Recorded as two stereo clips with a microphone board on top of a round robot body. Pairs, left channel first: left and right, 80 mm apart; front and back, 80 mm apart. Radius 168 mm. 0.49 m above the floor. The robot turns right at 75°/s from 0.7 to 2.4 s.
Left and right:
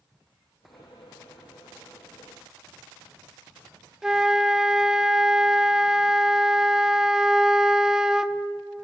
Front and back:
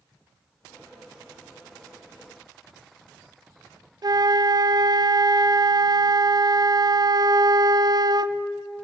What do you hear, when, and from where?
4.0 s a flute: 170° right, 0.9 m